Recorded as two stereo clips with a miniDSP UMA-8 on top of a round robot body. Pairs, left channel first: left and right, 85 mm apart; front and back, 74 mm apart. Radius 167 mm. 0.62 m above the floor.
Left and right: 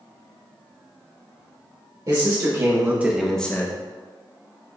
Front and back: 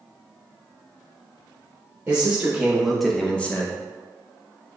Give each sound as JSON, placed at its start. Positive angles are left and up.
{"t": 2.1, "sound": "a man speaking", "azimuth_deg": -110, "distance_m": 1.7}